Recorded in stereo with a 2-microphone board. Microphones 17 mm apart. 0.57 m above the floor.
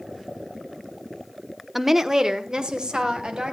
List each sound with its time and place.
1.8 s a woman speaking: 10° right (ahead or behind), 0.9 m; by 3.5 s 55° right (ahead or behind), 3 m